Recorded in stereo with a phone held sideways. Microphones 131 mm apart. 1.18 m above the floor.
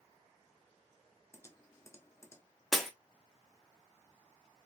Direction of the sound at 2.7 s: Centre (ahead or behind).